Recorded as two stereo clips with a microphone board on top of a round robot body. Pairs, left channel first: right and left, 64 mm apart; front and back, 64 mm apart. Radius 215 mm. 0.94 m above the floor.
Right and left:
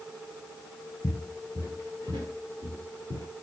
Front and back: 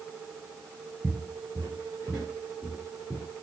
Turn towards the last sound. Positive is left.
turn(degrees=105)